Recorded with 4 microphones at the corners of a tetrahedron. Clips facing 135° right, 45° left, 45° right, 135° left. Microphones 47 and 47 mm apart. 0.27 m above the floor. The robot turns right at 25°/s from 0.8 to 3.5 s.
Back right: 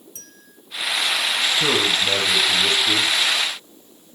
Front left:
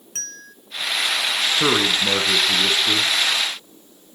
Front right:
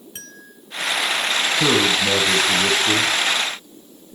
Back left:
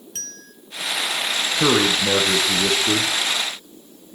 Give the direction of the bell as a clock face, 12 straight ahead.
11 o'clock.